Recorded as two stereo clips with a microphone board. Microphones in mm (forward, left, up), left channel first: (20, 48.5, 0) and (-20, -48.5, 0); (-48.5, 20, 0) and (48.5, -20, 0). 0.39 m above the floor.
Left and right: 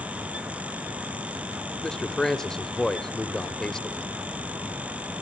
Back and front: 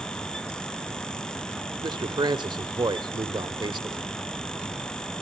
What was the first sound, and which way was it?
A man speaking, 15° right.